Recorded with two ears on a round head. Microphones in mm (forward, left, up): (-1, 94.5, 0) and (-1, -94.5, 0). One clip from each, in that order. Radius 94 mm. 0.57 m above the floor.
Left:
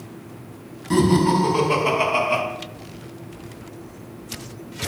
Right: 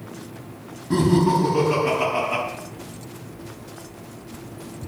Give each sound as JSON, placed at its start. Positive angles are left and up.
{"t": 0.9, "sound": "laughter", "side_deg": 75, "distance_m": 5.5}